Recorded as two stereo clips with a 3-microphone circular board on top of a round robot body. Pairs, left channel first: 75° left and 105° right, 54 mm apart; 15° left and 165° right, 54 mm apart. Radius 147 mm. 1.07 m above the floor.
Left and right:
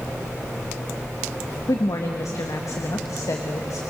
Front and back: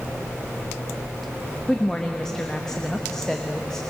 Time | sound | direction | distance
1.7 | a woman speaking | 95° left | 1.2 m